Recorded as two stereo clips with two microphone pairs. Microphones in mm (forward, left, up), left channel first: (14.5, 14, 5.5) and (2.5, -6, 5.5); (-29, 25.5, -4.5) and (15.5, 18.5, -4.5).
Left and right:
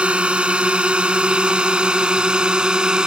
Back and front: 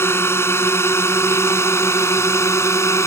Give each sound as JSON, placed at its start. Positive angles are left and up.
{"t": 0.0, "sound": "a drone", "azimuth_deg": -160}